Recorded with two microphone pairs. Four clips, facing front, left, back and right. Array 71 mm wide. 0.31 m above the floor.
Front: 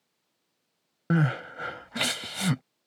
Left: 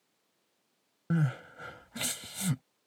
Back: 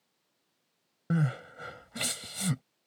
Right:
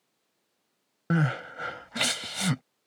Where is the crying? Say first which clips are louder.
Right 5 dB, front 5 dB; 45° right.